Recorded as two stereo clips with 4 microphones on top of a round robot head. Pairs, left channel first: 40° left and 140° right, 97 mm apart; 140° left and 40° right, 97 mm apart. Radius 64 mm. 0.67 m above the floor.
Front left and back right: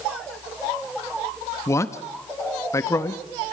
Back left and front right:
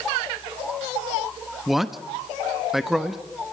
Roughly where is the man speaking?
Ahead left.